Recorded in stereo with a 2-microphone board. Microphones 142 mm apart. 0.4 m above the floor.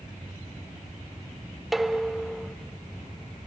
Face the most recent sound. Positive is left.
turn(degrees=0)  # may be behind; listen again after turning